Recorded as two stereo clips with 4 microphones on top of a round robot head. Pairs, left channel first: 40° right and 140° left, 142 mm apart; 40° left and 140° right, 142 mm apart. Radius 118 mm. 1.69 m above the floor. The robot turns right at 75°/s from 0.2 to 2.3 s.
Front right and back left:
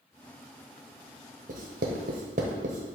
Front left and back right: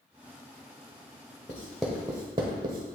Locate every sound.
1.5 s writing: 110° left, 0.9 m; by 3.0 s 170° left, 0.9 m